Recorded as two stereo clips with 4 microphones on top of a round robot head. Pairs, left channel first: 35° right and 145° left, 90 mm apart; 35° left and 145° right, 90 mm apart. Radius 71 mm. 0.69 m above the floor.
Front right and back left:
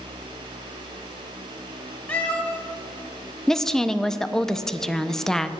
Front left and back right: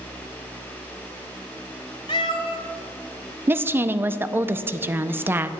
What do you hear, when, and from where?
2.1 s a cat meowing: 35° left, 0.6 m
3.5 s a woman speaking: 110° right, 0.5 m